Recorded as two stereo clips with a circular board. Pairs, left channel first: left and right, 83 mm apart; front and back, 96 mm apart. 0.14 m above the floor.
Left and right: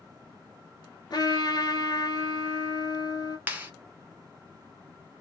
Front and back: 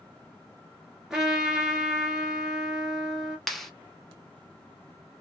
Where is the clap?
80° right, 0.8 m.